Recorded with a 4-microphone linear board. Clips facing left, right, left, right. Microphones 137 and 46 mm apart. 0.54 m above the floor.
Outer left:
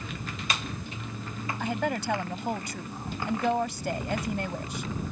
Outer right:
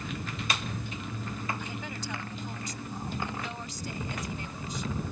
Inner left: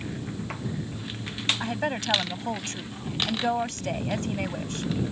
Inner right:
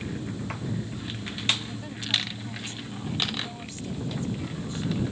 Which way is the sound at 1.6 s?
65° left (ahead or behind).